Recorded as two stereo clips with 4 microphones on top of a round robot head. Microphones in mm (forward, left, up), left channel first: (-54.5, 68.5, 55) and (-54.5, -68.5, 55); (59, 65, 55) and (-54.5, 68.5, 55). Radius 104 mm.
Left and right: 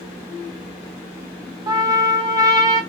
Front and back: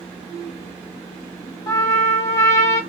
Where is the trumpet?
45° right, 0.8 m.